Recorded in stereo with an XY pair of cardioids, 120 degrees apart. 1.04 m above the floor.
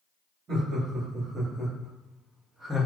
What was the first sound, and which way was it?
Laughter, 45° right.